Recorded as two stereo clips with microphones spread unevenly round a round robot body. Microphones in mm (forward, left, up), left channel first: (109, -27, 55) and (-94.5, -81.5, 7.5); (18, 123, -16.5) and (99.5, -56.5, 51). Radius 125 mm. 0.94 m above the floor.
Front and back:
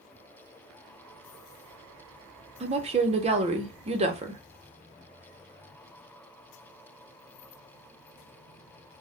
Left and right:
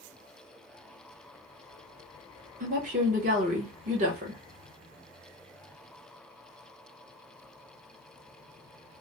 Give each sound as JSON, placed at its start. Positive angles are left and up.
{"t": 2.6, "sound": "a woman speaking", "azimuth_deg": -130, "distance_m": 0.7}